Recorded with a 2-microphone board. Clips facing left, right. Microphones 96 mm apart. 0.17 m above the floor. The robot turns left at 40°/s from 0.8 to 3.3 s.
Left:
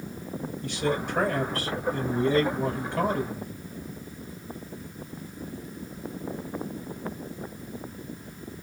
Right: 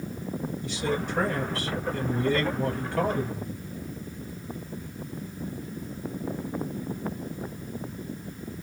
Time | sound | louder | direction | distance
0.6 | a man speaking | left 3 dB | 105° left | 2.5 m